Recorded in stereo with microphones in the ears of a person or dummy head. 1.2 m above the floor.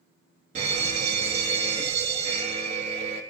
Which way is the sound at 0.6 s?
35° right (ahead or behind).